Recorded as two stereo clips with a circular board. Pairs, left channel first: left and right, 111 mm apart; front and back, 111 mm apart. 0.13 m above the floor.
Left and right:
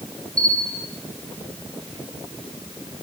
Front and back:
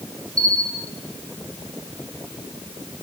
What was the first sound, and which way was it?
A bell, 120° left.